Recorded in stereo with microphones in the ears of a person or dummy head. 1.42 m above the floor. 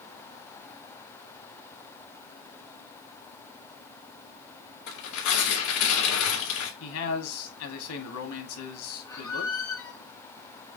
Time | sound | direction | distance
4.9 | tearing paper | 65° left (ahead or behind) | 3 m
6.8 | a man speaking | 80° left | 2.5 m
9.1 | a squeak | 15° left (ahead or behind) | 0.8 m